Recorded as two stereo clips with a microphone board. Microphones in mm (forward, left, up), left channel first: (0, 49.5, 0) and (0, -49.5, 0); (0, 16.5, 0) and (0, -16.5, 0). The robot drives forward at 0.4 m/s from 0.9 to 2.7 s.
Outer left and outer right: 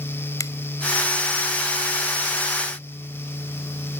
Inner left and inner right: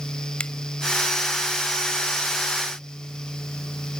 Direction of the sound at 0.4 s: 40° left (ahead or behind).